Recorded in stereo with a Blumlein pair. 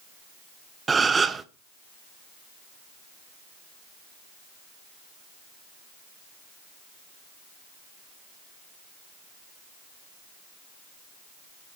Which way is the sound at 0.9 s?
15° right.